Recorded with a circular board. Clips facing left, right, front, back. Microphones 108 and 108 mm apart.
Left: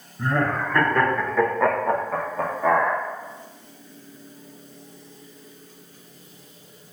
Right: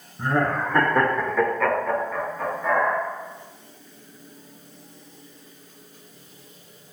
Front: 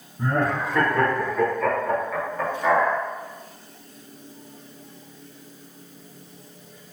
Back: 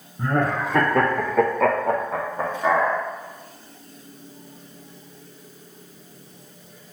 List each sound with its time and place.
0.2 s laughter: 150° right, 1.0 m; by 3.0 s 95° left, 0.7 m